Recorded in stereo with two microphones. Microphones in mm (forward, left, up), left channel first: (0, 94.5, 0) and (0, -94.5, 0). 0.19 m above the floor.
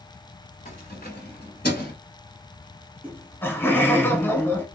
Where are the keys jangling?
45° left (ahead or behind), 1.5 m; by 1.9 s 60° left (ahead or behind), 1.6 m.